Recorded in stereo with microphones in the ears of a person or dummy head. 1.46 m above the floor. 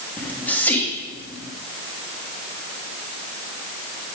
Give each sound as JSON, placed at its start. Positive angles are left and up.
{"t": 0.2, "sound": "whispering", "side_deg": 15, "distance_m": 1.4}